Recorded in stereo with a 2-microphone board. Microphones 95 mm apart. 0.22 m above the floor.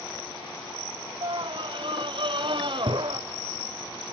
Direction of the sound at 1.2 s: 60° right (ahead or behind).